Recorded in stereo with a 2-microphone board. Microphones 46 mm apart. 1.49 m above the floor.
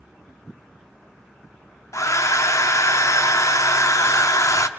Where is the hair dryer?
80° left, 0.7 m.